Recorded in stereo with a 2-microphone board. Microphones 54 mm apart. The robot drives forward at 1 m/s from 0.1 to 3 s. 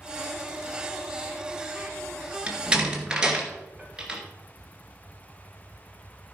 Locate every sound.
2.5 s a door slam: 20° right (ahead or behind), 2.0 m; by 4.2 s 15° right (ahead or behind), 2.5 m